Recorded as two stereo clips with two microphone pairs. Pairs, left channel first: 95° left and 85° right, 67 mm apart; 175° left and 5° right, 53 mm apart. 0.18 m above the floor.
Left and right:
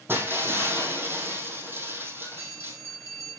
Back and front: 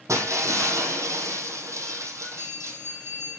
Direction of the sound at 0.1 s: 30° right.